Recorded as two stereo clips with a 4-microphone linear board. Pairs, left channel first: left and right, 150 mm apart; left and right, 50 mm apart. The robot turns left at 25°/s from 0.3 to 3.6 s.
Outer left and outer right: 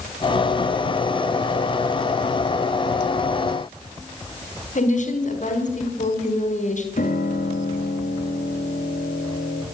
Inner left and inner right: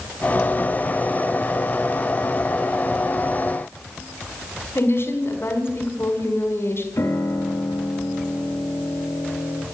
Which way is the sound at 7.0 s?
65° left (ahead or behind).